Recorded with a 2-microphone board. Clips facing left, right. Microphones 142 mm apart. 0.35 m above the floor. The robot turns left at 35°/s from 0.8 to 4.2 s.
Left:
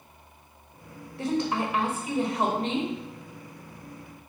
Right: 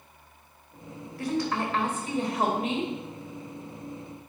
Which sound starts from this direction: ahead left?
A woman speaking, at 1.2 s.